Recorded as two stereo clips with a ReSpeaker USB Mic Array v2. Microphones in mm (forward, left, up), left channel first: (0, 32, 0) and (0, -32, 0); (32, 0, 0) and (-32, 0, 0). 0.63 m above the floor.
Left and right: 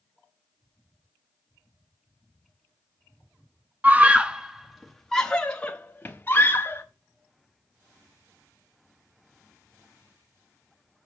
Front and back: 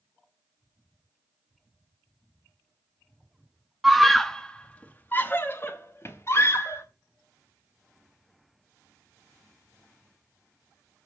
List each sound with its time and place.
3.8 s a scream: 100° right, 1.0 m; by 6.8 s 35° left, 1.9 m